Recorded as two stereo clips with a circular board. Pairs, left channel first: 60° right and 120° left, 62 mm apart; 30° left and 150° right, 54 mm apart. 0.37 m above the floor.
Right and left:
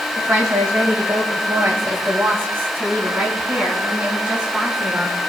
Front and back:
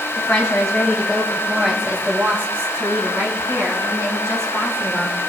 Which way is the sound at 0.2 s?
90° left.